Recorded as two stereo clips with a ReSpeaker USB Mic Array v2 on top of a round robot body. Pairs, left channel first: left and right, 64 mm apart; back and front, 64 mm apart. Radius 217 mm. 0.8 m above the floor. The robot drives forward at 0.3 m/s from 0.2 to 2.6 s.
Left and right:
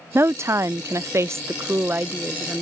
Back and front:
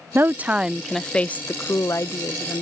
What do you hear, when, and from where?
0.1 s a woman speaking: 50° right; by 2.6 s 155° right